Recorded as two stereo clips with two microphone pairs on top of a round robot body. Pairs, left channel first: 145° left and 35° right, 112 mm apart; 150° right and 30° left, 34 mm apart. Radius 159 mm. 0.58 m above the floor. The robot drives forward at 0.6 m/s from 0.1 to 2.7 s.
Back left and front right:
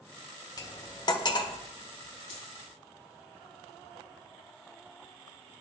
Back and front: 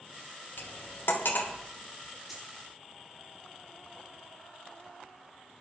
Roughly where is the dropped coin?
Behind left.